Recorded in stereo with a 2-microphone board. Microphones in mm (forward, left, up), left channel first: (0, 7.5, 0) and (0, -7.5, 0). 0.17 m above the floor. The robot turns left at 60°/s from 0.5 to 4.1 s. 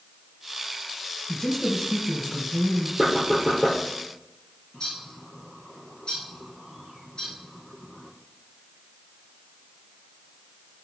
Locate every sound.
1.3 s a woman speaking: 60° left, 2 m; by 2.9 s 35° right, 2 m
3.0 s knocking: 170° right, 4.5 m; by 3.8 s 140° left, 4.5 m
4.7 s a bird: 60° left (ahead or behind), 4 m